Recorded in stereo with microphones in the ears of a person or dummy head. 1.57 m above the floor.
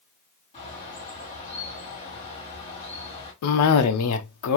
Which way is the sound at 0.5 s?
30° left (ahead or behind).